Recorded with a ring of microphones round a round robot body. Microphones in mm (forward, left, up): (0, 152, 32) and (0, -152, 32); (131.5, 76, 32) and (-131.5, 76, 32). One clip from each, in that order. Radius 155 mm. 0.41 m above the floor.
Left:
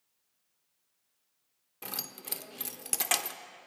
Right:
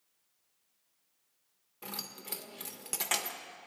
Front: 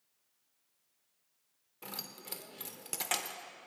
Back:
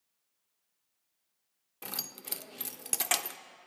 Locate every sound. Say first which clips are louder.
1.8 s keys jangling: left 2 dB, back 4 dB; 150° left, 0.5 m